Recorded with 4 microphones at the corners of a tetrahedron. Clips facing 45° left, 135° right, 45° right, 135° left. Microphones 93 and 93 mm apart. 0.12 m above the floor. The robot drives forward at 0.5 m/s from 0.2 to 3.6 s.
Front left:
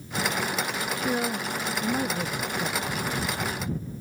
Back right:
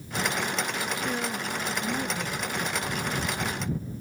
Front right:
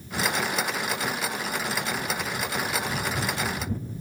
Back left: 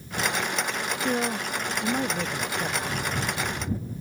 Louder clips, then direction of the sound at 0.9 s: Front left 3 dB, back left 3 dB; 100° left.